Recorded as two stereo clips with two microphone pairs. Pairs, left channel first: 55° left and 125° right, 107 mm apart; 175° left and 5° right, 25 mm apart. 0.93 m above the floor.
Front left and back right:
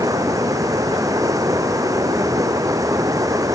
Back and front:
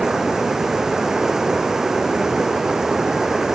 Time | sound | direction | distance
0.0 | running water | 70° right | ?